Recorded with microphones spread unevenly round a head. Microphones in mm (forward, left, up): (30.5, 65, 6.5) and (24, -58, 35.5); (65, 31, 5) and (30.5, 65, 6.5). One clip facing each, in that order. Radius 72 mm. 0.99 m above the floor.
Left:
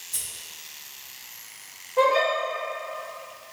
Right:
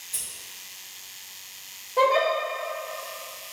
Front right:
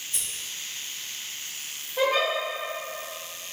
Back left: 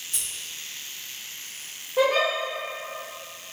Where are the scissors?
175° left, 0.7 m.